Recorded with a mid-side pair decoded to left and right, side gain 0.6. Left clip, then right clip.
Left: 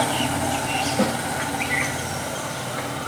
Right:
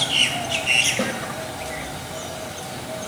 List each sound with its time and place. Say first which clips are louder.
1.0 s a snare drum: left 2 dB; straight ahead, 3.5 m